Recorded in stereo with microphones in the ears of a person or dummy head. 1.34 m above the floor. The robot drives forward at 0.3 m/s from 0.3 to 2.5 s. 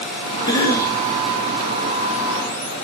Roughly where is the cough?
Centre.